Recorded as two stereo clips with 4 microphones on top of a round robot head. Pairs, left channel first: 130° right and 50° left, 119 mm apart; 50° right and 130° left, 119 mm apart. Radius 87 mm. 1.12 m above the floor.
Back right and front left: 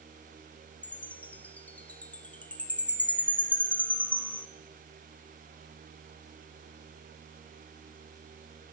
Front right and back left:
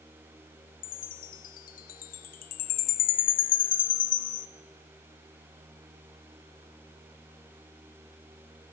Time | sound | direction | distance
0.8 | a chime | 50° right | 0.7 m